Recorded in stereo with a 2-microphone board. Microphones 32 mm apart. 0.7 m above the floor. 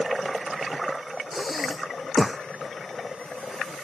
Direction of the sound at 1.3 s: Centre (ahead or behind).